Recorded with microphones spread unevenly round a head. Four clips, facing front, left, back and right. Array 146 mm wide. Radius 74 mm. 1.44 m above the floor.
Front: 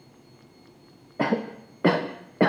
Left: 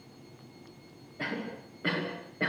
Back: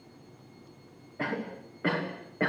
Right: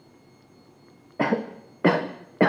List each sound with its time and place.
1.2 s a cough: 55° right, 1.0 m